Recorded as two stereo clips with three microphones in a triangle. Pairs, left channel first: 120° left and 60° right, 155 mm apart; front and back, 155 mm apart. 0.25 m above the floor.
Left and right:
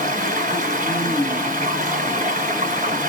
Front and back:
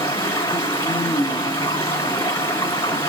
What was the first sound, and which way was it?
Running water, 65° right.